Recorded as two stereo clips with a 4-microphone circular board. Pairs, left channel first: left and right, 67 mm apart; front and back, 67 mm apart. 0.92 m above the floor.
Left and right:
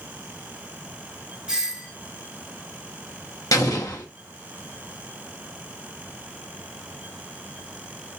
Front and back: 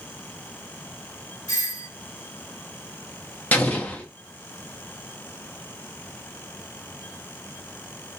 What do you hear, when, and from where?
1.5 s a doorbell: 15° right, 1.5 m
3.5 s an explosion: 60° left, 1.2 m